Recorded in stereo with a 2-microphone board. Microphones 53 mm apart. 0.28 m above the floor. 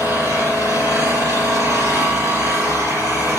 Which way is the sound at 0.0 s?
80° right.